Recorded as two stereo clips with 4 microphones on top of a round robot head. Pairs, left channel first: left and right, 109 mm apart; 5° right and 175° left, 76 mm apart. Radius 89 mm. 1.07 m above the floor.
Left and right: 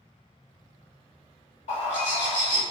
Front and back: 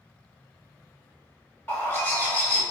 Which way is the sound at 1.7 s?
60° left.